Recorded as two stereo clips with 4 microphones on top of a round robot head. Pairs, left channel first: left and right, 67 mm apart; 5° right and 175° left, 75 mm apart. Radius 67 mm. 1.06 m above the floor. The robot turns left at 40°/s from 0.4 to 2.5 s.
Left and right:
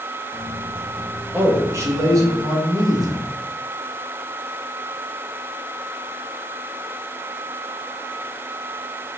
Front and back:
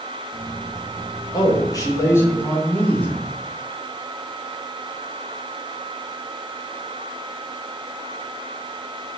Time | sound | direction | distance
1.3 | a man speaking | 25° right | 1.9 m